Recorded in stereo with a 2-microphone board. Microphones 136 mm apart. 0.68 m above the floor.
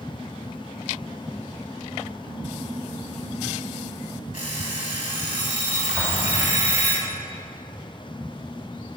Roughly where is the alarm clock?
Left.